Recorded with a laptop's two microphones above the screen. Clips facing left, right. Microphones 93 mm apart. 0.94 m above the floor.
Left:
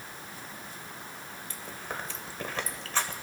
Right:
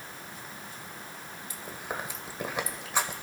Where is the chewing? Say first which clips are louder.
Right 2 dB; 15° right (ahead or behind), 1.5 m.